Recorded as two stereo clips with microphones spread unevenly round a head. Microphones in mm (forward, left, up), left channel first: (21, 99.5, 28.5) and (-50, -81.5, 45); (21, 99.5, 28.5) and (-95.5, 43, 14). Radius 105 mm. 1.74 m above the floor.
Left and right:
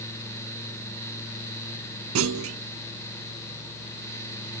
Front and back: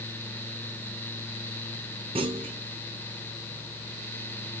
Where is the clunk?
90° right, 0.9 m.